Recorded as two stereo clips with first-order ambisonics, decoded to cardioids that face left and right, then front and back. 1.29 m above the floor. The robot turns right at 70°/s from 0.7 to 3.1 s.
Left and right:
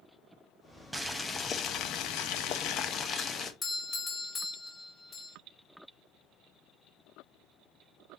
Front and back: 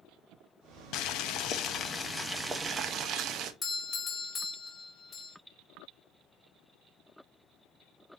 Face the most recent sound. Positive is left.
turn(degrees=50)